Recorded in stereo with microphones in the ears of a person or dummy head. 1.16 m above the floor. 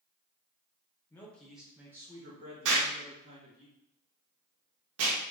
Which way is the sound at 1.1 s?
10° left (ahead or behind).